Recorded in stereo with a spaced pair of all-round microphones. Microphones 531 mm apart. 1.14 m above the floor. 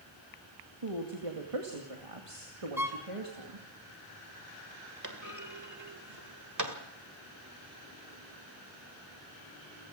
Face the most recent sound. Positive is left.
turn(degrees=-35)  # may be behind; listen again after turning